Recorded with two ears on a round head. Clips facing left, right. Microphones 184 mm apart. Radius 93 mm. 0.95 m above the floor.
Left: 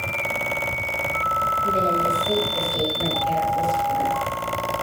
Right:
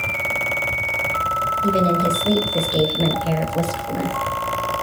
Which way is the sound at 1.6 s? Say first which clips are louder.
Right 5 dB; 55° right (ahead or behind).